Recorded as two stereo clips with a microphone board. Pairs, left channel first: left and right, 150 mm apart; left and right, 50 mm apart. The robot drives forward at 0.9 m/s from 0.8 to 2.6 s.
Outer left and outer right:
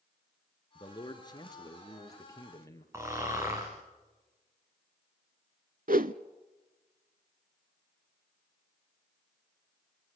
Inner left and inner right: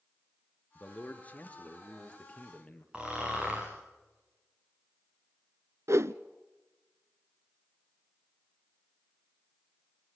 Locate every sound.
0.8 s a man speaking: 30° left (ahead or behind), 3 m; by 2.8 s 20° left (ahead or behind), 4.5 m
2.9 s snoring: 20° right (ahead or behind), 5.5 m
5.9 s a whoosh: 70° right (ahead or behind), 0.7 m